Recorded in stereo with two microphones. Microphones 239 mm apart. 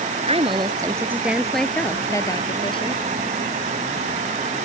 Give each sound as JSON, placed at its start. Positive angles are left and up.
{"t": 0.3, "sound": "a woman speaking", "side_deg": -25}